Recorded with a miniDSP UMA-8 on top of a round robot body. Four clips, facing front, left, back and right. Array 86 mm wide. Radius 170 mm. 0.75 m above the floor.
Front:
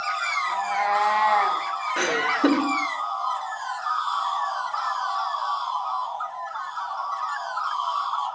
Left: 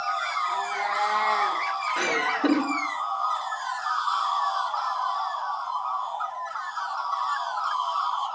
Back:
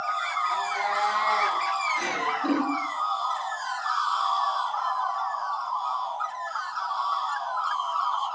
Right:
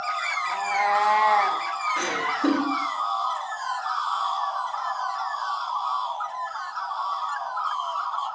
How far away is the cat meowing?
About 3 m.